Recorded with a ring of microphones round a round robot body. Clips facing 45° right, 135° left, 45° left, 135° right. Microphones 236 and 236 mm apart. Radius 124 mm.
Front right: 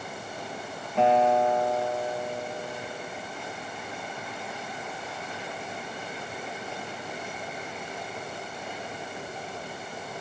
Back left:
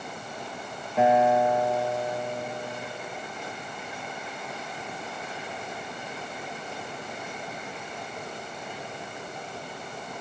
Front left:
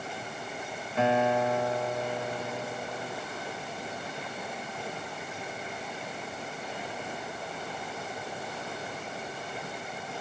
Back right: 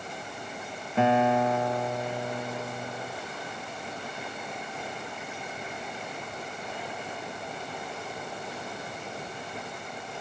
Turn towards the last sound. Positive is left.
turn(degrees=-140)